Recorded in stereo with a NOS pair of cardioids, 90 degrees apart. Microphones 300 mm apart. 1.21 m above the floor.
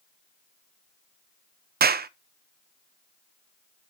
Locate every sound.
1.8 s a clap: 30° right, 0.8 m